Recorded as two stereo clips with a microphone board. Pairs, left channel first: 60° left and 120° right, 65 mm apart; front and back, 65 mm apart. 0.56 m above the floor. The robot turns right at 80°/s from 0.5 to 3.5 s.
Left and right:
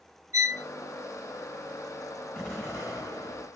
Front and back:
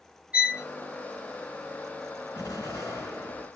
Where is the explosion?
10° right, 3 m; by 3.5 s 75° left, 3 m.